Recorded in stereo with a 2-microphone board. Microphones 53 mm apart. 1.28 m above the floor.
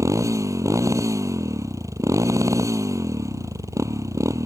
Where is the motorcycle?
80° right.